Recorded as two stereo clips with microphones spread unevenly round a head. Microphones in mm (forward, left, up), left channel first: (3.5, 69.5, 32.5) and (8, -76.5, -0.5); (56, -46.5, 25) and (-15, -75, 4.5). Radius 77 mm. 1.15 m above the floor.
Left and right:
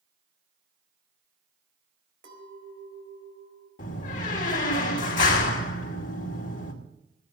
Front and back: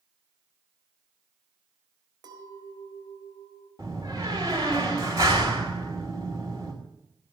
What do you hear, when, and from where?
2.2 s a clink: 125° right, 4 m
3.8 s a door slam: 130° left, 2.5 m